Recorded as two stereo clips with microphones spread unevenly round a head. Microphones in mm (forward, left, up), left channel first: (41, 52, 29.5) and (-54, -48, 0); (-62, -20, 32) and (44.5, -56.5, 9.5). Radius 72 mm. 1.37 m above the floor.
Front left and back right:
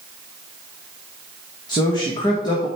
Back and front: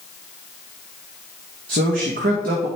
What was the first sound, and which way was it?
A man speaking, 15° right.